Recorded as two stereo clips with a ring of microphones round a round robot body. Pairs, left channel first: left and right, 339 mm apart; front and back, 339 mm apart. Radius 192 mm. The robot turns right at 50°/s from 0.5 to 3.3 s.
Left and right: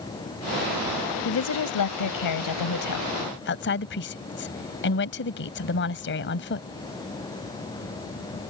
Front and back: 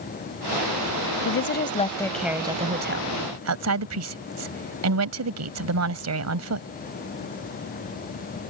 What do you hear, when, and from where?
1.2 s a woman speaking: 45° left; by 6.7 s 145° left